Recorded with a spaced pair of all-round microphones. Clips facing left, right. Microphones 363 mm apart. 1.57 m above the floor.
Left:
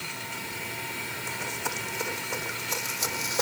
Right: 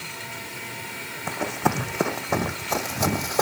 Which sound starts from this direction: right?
Running footsteps, at 1.3 s.